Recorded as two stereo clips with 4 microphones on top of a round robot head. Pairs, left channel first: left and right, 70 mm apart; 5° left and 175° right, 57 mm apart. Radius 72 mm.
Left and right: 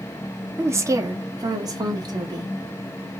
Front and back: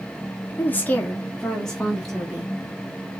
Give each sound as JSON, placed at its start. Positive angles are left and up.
{"t": 0.6, "sound": "a woman speaking", "azimuth_deg": -45, "distance_m": 1.0}